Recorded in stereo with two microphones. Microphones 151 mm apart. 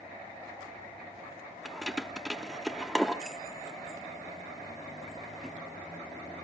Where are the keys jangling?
Centre (ahead or behind), 1.1 m.